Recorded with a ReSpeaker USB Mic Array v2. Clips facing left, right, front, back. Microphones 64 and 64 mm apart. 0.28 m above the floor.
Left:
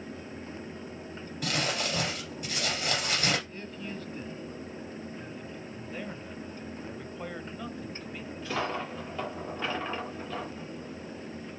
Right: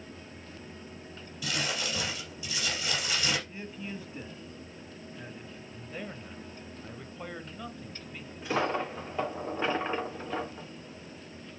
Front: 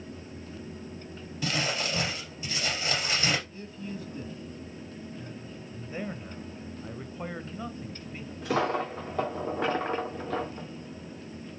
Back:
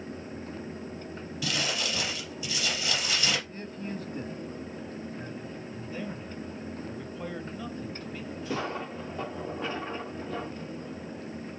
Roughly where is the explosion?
No explosion in this recording.